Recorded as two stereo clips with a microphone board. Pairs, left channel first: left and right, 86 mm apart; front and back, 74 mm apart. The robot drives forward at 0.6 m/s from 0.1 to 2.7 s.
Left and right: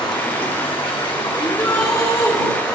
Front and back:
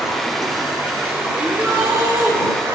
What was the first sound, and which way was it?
Running water, 90° left.